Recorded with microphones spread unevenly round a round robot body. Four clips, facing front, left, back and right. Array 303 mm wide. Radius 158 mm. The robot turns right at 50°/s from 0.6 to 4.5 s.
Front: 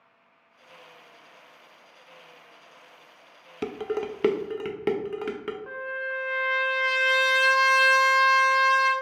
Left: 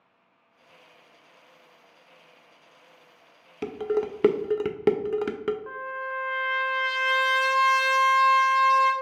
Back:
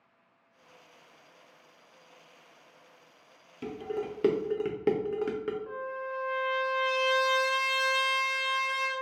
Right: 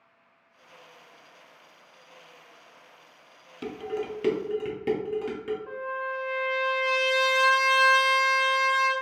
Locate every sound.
3.6 s dishes clattering: 5° left, 0.5 m; by 5.6 s 50° left, 0.5 m
5.7 s a trumpet: 45° left, 1.1 m